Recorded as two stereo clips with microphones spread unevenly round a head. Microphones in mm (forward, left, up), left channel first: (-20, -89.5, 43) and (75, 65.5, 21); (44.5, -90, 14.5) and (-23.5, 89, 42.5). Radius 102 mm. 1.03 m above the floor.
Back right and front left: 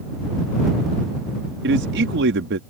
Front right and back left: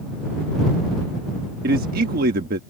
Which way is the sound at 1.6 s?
65° left.